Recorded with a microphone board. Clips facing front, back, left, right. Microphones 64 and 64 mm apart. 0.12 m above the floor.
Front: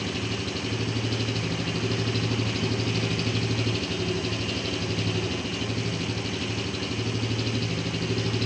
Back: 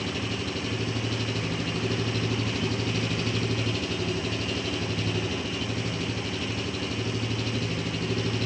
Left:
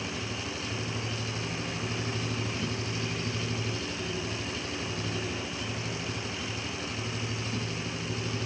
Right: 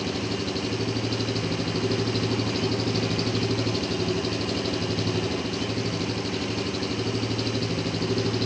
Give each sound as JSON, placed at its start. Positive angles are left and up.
{"t": 0.0, "sound": "an engine running", "azimuth_deg": -95, "distance_m": 3.5}